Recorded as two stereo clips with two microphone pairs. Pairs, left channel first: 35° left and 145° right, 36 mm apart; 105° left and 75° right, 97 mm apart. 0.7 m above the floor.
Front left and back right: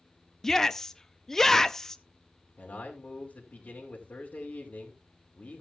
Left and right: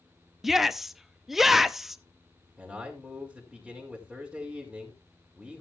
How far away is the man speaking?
About 2 m.